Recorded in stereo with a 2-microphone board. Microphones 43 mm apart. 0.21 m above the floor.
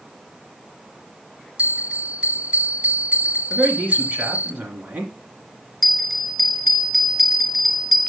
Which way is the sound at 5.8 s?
5° left (ahead or behind).